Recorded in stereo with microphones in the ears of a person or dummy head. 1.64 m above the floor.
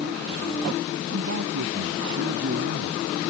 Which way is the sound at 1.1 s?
75° right (ahead or behind).